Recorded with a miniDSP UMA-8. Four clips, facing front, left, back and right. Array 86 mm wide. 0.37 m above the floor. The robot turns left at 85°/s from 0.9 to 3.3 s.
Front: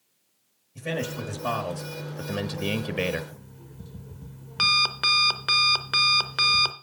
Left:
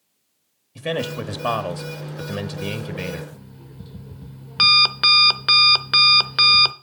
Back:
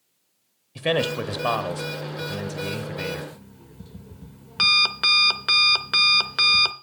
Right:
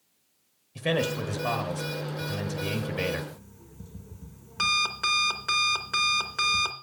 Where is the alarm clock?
100° left, 0.6 m.